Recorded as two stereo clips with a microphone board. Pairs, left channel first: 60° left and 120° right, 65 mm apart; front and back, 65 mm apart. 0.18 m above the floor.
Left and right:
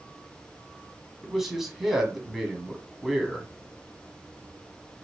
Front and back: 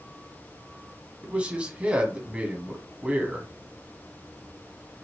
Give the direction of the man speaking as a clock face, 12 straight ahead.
7 o'clock.